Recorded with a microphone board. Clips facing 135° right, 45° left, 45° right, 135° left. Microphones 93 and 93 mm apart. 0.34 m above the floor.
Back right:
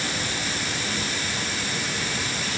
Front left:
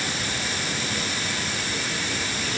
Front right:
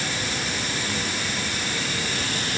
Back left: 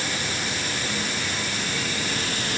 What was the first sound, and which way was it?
Only background noise.